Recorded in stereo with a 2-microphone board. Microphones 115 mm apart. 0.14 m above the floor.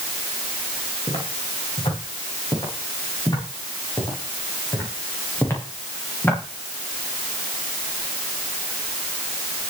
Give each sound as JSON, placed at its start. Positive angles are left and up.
{"t": 1.1, "sound": "footsteps", "side_deg": 50, "distance_m": 9.5}